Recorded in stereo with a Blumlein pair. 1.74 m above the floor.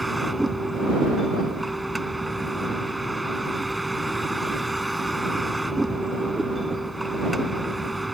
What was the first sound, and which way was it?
A vehicle, straight ahead.